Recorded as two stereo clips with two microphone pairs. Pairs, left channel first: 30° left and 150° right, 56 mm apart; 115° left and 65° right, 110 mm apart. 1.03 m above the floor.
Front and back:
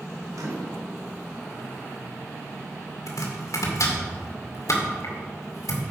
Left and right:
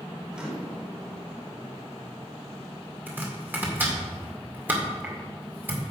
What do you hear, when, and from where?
0.3 s a microwave: 145° right, 2 m
3.1 s chopping: 10° left, 1.9 m